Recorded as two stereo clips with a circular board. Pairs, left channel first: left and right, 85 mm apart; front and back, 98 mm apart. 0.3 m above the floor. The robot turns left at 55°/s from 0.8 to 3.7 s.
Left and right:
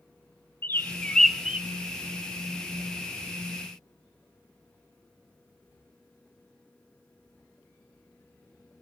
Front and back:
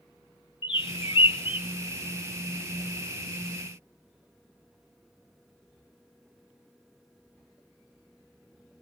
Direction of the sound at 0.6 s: 25° left.